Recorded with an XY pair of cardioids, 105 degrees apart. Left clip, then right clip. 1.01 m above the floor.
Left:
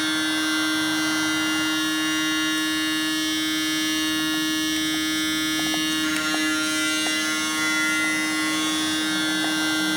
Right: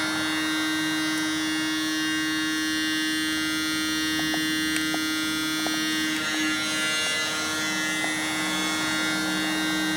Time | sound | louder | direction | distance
0.0 | a machine running | left 3 dB | 35° left | 1.3 m